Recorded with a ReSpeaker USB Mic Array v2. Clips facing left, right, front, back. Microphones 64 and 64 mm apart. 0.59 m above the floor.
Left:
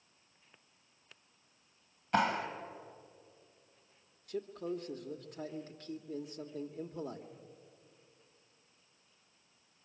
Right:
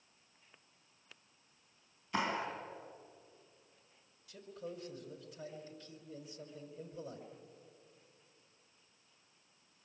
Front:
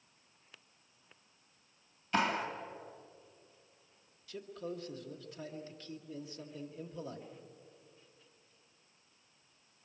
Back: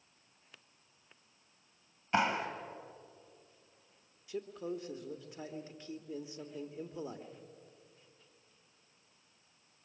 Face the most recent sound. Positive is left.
turn(degrees=115)